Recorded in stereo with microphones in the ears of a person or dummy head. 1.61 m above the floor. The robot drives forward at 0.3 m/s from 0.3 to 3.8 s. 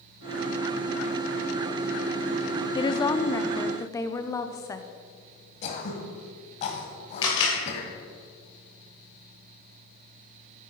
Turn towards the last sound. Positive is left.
turn(degrees=25)  # may be behind; listen again after turning